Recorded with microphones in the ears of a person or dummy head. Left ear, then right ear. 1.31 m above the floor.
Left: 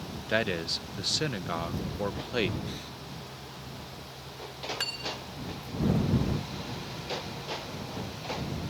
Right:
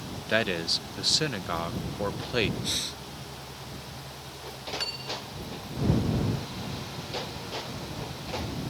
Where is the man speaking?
5° right (ahead or behind).